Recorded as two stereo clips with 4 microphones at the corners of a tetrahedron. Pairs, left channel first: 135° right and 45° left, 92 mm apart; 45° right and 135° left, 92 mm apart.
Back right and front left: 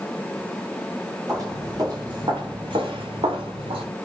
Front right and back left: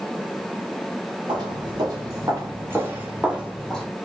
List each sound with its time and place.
1.3 s footsteps: 95° left, 1.8 m; by 3.9 s 40° left, 1.2 m